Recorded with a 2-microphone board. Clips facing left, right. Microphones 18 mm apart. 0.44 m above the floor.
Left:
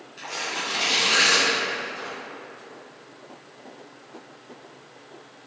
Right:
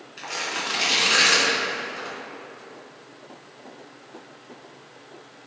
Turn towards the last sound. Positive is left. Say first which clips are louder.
# right 1 dB
turn(degrees=-20)  # may be behind; listen again after turning